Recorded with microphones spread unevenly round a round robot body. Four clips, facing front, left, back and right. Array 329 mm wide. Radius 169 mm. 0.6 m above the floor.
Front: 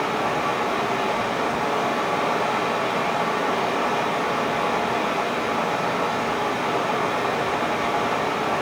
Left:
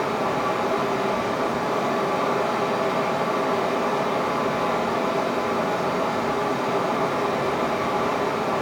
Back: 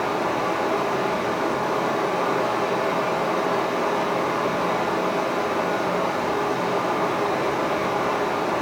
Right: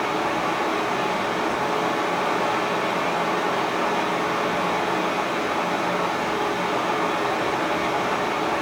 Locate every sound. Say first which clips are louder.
0.0 s running water: even, even; 70° left, 3.5 m